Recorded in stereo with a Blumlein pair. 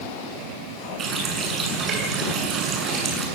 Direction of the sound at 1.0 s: 20° right.